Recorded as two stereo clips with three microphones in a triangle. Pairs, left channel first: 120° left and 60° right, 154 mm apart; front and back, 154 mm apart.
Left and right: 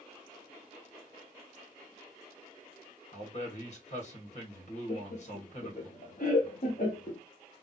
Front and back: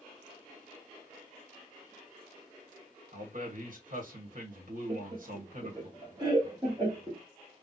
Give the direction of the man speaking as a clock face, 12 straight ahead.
7 o'clock.